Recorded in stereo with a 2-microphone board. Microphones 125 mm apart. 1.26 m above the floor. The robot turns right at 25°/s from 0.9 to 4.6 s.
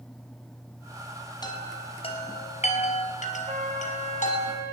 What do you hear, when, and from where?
1.4 s a chime: 35° left (ahead or behind), 4.5 m; by 4.5 s 70° left (ahead or behind), 4.5 m
3.5 s a flute: 85° right, 8 m; by 4.7 s 60° right (ahead or behind), 8 m